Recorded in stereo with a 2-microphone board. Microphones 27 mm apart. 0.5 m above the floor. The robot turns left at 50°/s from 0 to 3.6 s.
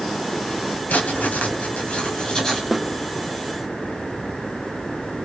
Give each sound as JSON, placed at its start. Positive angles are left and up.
{"t": 0.9, "sound": "writing", "azimuth_deg": 100, "distance_m": 2.5}
{"t": 2.7, "sound": "a snare drum", "side_deg": 0, "distance_m": 1.0}